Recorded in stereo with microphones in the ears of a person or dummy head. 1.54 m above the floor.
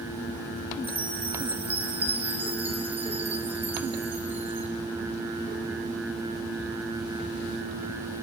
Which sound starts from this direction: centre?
A chime, at 0.8 s.